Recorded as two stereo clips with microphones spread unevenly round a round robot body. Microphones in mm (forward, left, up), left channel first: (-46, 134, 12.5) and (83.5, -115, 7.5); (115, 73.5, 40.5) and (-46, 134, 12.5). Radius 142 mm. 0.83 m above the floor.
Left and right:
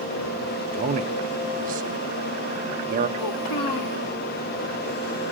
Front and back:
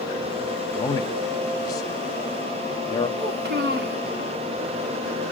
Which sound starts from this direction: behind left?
A child speaking, at 3.2 s.